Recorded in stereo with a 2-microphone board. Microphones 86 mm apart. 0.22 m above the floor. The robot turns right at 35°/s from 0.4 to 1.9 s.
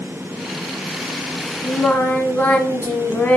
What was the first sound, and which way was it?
Singing, 25° left (ahead or behind).